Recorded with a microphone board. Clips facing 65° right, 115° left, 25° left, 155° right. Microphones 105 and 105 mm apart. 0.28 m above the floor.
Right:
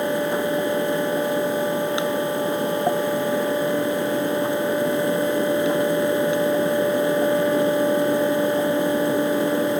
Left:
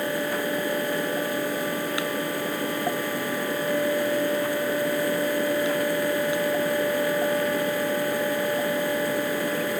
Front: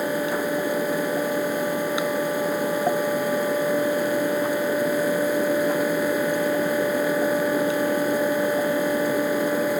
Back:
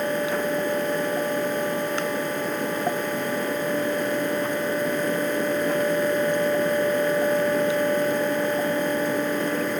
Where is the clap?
No clap in this recording.